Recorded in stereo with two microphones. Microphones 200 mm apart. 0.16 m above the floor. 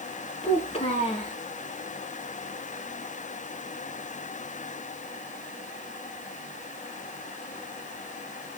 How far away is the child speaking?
About 1.1 m.